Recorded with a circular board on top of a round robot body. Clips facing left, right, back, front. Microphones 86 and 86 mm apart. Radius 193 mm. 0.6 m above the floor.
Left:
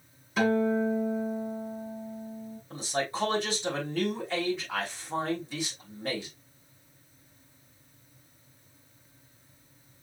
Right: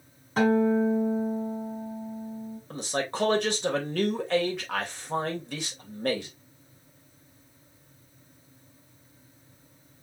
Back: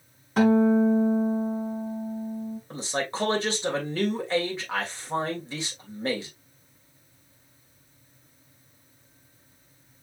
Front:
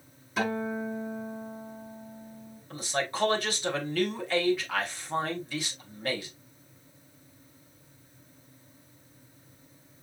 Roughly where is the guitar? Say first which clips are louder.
Right 3 dB, back 11 dB; behind right.